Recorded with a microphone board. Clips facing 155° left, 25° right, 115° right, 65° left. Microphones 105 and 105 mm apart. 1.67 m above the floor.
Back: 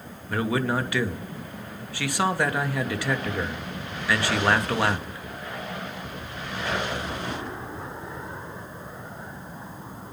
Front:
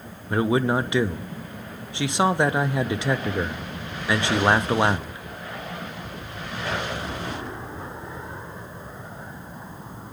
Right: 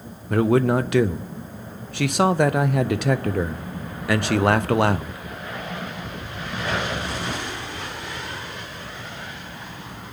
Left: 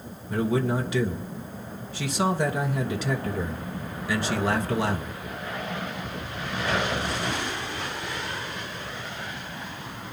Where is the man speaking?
90° right, 0.7 m.